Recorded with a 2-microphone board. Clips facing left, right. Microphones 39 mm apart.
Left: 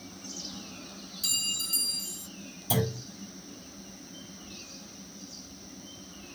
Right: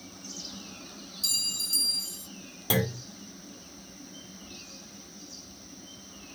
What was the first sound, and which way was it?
A clink, 40° left (ahead or behind).